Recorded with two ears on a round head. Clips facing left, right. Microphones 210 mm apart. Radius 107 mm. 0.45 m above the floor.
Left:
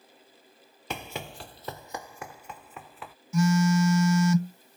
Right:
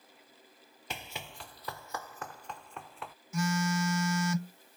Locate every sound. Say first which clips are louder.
0.9 s running footsteps: left 8 dB; 50° left (ahead or behind); by 3.1 s centre (ahead or behind)
3.3 s a phone buzzing: left 8 dB; 80° left